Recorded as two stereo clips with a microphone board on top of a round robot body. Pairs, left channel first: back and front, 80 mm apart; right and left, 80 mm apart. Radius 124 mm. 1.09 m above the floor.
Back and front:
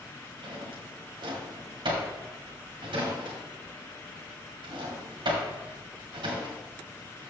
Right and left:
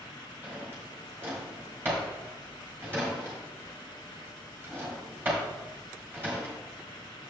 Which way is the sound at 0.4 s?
25° left.